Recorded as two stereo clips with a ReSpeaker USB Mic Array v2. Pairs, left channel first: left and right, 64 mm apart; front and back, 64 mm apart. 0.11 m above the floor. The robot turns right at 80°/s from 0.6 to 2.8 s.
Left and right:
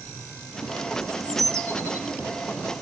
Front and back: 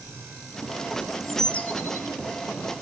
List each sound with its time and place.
1.0 s a bird: 110° right, 0.7 m; by 2.1 s 25° right, 0.7 m